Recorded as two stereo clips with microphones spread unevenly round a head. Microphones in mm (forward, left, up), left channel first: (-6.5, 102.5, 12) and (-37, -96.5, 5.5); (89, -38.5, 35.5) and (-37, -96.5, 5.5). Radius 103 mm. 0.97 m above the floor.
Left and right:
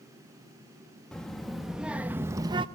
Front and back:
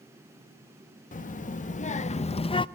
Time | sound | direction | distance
1.1 | a child speaking | 5° right | 1.3 m